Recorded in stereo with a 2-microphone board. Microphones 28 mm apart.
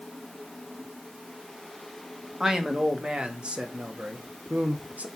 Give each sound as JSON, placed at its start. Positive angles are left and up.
{"t": 2.4, "sound": "a man speaking", "side_deg": -20, "distance_m": 1.9}